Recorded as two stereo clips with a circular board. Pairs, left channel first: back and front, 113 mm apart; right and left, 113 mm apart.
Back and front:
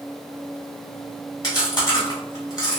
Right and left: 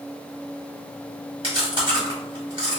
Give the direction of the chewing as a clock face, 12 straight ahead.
8 o'clock.